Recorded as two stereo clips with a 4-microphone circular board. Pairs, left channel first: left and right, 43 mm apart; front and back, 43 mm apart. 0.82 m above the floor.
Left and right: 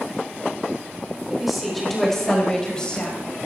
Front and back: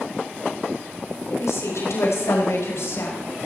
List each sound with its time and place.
1.3 s a woman speaking: 5° right, 4 m; by 3.2 s 20° left, 5 m